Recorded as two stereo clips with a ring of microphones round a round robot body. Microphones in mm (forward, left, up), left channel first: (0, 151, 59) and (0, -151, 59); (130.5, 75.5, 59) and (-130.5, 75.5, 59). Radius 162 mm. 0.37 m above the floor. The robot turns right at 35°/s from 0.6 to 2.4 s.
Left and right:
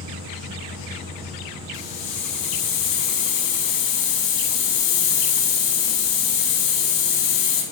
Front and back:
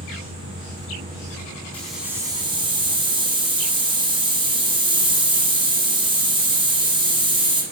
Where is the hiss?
85° left, 5.5 m; by 7.6 s 105° left, 5.5 m.